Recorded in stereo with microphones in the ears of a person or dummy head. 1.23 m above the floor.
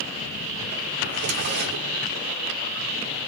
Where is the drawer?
50° right (ahead or behind), 0.7 m.